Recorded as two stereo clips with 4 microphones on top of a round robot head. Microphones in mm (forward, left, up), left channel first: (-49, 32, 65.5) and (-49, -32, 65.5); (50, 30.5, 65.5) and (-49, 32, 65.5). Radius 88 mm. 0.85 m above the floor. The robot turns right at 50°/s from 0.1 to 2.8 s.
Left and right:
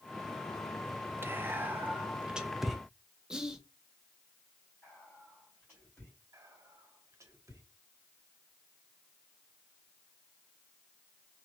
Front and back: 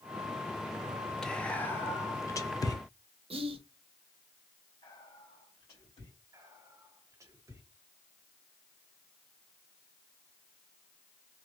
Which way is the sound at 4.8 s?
15° left.